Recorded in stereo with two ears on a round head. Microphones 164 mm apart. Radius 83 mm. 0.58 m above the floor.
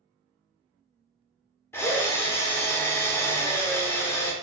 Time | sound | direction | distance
1.7 | a drill | 15° left (ahead or behind) | 0.8 m